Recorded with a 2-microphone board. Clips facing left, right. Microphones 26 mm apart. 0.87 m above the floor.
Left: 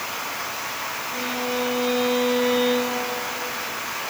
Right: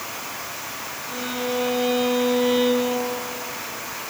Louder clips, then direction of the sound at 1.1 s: Right 2 dB; 25° right (ahead or behind).